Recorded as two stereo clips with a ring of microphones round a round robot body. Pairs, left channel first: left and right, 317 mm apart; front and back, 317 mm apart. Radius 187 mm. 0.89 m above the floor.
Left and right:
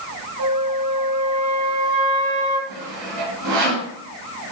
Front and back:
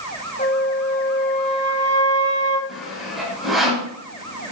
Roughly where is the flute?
Right.